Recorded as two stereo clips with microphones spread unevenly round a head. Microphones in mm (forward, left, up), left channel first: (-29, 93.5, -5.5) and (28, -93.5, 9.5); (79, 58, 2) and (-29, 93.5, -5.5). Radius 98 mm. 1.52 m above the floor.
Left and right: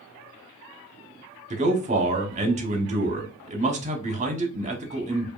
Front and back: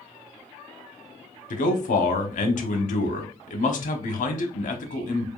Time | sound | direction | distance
1.5 | a man speaking | 15° right | 0.9 m